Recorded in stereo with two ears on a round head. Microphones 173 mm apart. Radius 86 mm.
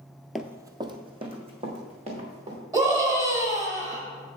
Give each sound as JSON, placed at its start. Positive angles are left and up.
{"t": 0.3, "sound": "running footsteps", "side_deg": 0, "distance_m": 0.5}
{"t": 2.7, "sound": "a scream", "side_deg": -20, "distance_m": 2.5}